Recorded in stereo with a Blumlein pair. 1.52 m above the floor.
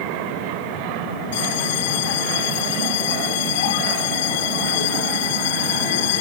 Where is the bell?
50° left.